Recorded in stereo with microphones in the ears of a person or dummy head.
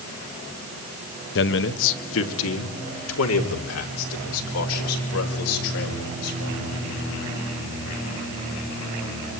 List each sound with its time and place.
1.4 s a man speaking: 60° left (ahead or behind), 1.3 m; by 6.6 s 85° left, 7 m